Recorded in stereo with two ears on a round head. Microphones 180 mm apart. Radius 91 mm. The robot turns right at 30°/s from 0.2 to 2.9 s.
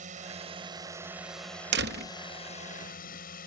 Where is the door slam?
55° right (ahead or behind); by 2.1 s 45° right (ahead or behind).